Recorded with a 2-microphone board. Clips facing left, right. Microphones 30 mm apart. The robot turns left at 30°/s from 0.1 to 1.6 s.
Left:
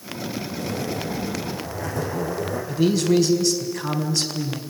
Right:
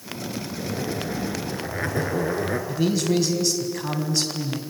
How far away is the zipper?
About 3 m.